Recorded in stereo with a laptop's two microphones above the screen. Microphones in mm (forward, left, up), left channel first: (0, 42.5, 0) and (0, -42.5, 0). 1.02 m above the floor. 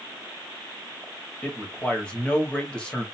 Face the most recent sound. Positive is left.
turn(degrees=10)  # may be behind; listen again after turning